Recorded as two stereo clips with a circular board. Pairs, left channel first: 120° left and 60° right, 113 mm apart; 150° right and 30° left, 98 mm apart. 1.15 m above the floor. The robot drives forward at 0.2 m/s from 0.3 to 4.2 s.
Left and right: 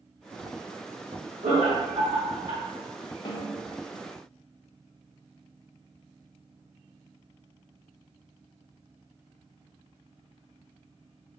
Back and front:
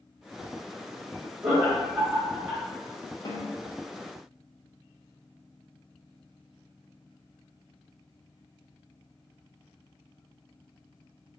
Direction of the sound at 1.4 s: 35° right.